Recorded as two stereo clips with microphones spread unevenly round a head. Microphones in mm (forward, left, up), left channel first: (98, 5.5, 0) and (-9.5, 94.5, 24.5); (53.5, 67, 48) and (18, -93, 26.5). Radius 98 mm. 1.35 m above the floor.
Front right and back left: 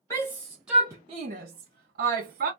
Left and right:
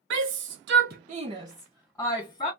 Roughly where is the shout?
Behind right.